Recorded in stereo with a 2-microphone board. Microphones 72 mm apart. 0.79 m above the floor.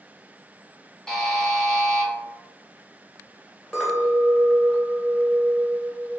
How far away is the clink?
About 1.8 m.